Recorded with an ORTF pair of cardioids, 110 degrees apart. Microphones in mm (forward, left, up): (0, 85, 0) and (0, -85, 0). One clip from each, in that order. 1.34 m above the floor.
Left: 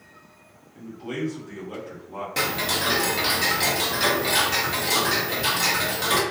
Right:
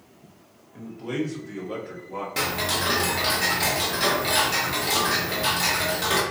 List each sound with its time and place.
0.7 s a man speaking: 70° right, 1.6 m; by 2.3 s 45° right, 1.8 m
2.4 s ticking: 5° left, 0.7 m